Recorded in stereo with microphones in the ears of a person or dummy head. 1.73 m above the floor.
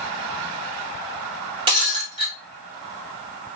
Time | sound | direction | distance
1.7 | breaking glass | 25° right (ahead or behind) | 1.2 m